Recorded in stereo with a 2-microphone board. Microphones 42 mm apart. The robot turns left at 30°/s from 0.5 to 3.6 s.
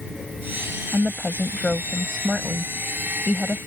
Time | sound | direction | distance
0.9 | a woman speaking | 25° left (ahead or behind) | ?